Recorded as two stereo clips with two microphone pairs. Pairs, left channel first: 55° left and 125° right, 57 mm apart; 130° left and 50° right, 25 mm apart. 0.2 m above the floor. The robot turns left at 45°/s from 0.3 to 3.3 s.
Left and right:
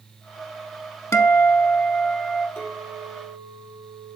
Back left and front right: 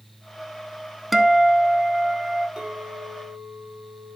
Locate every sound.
1.1 s a guitar: 40° left, 0.5 m; by 2.5 s 20° right, 0.5 m
2.6 s a clink: 10° left, 3 m; by 4.2 s 20° right, 3 m